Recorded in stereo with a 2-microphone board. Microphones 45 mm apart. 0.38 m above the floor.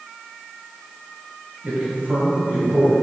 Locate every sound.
1.6 s a man speaking: 40° right (ahead or behind), 1.7 m